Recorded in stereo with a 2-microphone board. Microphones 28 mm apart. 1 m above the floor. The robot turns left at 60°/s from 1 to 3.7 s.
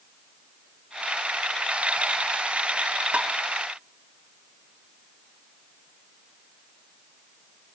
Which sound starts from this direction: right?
Tapping, at 3.1 s.